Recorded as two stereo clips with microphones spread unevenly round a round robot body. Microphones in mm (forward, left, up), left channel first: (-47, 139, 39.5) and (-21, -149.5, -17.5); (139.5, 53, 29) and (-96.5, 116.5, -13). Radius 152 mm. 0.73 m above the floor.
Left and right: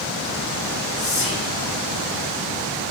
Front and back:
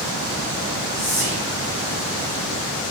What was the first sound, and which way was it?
Whispering, 25° left.